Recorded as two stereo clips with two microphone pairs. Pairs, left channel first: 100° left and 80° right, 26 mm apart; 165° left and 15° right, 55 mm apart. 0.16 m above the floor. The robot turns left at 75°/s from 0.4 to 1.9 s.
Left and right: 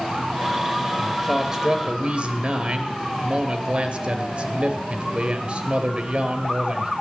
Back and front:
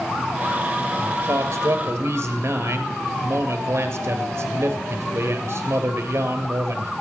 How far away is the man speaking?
About 2 m.